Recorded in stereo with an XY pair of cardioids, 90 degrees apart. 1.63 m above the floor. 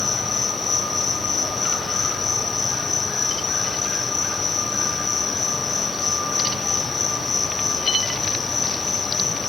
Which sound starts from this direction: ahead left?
An insect, at 0.0 s.